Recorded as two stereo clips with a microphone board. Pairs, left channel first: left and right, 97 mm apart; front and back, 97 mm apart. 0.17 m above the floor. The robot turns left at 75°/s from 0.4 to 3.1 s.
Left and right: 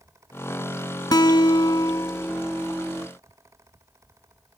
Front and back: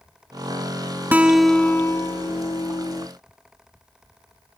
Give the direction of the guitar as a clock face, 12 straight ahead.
8 o'clock.